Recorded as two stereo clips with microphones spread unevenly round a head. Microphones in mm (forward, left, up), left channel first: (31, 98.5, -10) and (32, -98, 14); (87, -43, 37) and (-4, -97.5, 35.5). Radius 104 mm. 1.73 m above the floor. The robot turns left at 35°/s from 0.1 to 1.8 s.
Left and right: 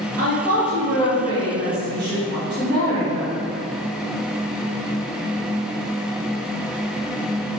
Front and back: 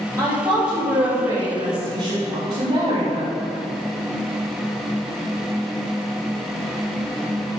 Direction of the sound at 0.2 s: 85° right.